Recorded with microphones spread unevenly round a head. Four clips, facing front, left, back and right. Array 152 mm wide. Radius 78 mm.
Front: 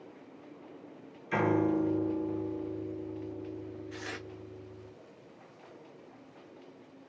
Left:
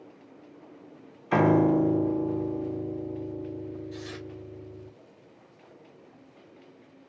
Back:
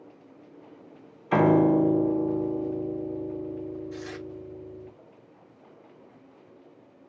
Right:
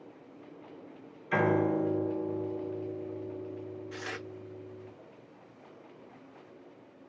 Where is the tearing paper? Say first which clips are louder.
Left 1 dB, back 5 dB; 65° right, 0.8 m.